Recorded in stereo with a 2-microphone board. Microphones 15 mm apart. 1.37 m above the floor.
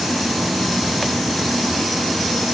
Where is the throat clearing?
No throat clearing in this recording.